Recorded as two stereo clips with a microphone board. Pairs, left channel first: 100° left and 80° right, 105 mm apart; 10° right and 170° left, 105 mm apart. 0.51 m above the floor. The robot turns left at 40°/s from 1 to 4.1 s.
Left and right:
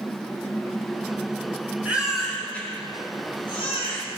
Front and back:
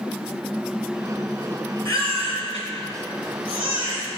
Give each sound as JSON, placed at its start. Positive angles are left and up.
{"t": 1.9, "sound": "a baby crying", "azimuth_deg": -155, "distance_m": 4.5}